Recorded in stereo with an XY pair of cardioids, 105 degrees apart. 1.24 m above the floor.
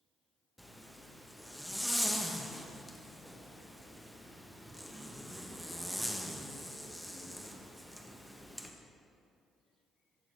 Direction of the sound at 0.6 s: Straight ahead.